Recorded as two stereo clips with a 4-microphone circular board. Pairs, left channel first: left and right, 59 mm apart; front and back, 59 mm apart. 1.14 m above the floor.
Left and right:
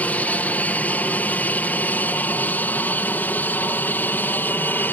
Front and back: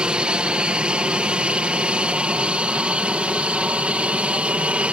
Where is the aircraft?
120° left.